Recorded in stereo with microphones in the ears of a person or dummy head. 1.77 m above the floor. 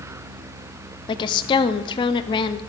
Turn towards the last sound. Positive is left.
turn(degrees=20)  # may be behind; listen again after turning